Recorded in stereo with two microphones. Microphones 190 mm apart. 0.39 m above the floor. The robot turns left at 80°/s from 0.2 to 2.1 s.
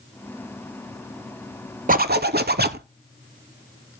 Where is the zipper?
50° right (ahead or behind), 0.5 m; by 2.9 s 60° right (ahead or behind), 0.5 m.